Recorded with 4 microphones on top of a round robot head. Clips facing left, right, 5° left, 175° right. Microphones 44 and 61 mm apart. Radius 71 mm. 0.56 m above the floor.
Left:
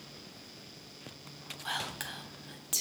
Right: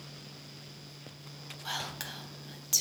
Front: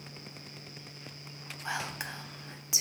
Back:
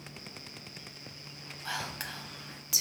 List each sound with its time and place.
1.6 s whispering: 30° left, 0.6 m